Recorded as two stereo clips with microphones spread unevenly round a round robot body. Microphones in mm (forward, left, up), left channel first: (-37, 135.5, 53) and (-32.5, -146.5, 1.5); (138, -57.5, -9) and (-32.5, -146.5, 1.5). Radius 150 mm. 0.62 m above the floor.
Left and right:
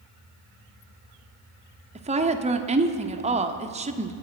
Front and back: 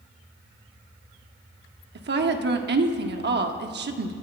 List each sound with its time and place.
1.9 s a woman speaking: 145° right, 1.2 m